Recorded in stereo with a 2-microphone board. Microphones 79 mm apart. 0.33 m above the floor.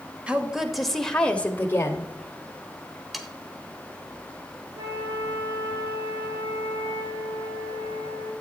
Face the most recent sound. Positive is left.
turn(degrees=-60)  # may be behind; listen again after turning